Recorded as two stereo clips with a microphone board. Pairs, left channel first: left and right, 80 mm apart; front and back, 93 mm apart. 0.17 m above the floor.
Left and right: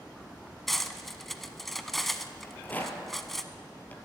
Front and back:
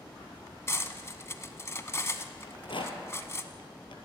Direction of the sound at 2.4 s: 20° left.